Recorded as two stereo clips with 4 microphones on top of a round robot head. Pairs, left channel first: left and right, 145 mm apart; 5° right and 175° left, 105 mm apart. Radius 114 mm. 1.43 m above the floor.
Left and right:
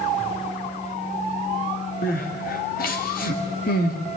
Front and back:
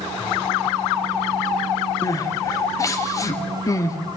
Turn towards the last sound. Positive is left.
turn(degrees=55)